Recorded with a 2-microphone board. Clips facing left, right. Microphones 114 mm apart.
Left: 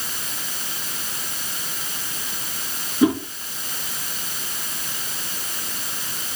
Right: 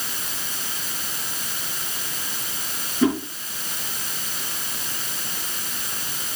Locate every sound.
3.0 s a whoosh: 15° left (ahead or behind), 3.5 m